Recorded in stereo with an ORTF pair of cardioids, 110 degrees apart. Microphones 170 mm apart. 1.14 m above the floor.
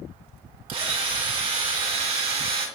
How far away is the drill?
About 2 m.